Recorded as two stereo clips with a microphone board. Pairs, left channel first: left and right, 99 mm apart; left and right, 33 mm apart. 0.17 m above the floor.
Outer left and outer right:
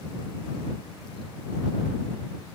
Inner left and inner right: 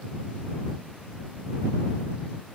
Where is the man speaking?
I don't hear a man speaking.